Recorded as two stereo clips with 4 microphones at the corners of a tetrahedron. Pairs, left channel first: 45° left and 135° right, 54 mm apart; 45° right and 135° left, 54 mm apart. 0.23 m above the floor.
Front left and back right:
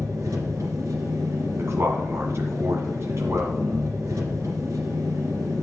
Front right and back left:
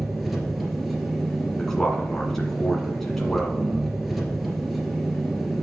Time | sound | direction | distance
0.0 | an engine running | 135° right | 2.5 m
1.6 | a man speaking | 130° right | 1.8 m